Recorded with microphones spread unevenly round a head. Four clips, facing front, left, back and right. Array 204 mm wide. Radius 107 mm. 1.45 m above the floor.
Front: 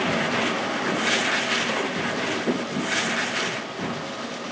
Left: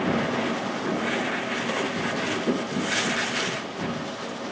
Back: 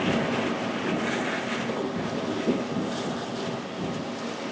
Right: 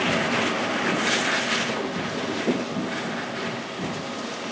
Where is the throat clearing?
I don't hear throat clearing.